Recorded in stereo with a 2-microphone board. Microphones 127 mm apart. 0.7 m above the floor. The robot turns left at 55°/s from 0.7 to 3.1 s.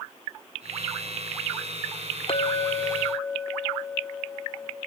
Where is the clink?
50° left, 0.9 m; by 4.8 s 5° left, 0.9 m.